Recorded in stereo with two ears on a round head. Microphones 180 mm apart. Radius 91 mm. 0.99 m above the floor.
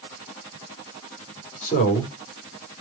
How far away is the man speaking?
About 3 m.